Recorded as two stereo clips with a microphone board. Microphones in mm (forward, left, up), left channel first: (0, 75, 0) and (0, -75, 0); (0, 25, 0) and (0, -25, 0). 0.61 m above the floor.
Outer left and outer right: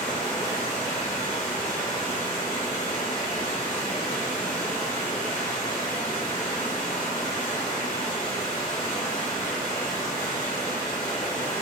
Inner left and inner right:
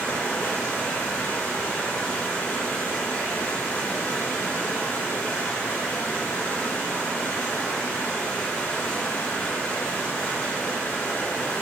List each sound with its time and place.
0.0 s running water: 60° left (ahead or behind), 1.7 m